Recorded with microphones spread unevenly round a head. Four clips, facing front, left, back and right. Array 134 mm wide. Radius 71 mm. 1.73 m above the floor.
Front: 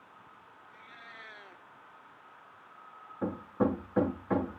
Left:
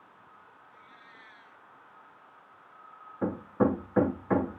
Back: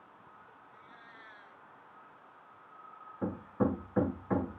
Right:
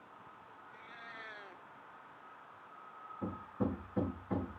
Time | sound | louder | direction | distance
0.7 | a cat meowing | right 5 dB, front 5 dB | 40° right | ?
3.2 | hammering | left 11 dB, front 2 dB | 80° left | ?